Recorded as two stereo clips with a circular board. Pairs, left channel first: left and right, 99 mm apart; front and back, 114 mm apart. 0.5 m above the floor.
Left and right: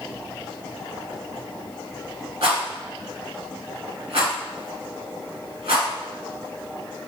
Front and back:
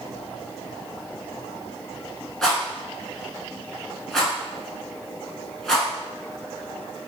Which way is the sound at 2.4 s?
85° right.